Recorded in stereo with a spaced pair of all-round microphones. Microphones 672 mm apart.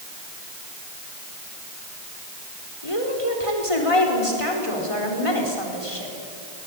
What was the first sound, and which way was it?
A woman speaking, 55° left (ahead or behind).